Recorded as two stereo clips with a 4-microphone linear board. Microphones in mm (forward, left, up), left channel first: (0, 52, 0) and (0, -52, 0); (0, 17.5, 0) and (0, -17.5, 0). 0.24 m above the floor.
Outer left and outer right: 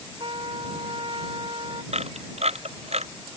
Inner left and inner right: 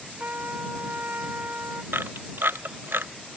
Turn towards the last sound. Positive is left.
turn(degrees=-80)